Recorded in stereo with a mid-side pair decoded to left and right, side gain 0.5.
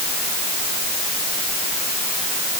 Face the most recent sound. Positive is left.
No sound to turn to.